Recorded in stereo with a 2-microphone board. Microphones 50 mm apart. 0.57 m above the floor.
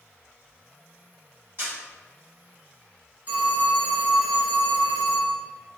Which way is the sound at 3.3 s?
35° right (ahead or behind).